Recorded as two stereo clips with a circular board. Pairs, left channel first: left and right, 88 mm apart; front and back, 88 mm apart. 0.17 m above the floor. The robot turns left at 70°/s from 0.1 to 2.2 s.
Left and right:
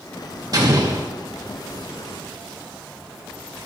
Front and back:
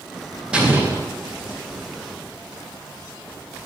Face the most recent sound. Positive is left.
turn(degrees=135)